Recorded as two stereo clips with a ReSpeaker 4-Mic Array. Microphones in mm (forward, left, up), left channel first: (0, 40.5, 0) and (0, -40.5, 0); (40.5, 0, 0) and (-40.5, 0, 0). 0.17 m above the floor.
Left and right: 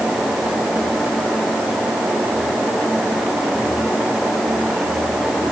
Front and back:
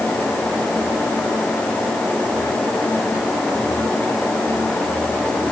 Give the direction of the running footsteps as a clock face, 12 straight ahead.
No running footsteps in this recording.